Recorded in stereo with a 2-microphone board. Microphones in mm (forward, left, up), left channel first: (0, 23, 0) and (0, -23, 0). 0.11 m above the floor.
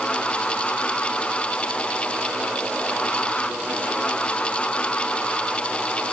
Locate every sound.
Only background noise.